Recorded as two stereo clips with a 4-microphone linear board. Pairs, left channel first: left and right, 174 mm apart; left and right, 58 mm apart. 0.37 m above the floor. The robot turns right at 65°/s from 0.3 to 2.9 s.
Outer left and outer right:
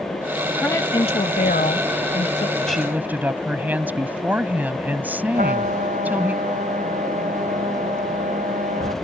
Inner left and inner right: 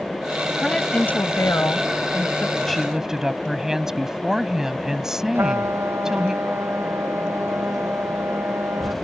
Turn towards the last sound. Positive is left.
turn(degrees=-50)  # may be behind; listen again after turning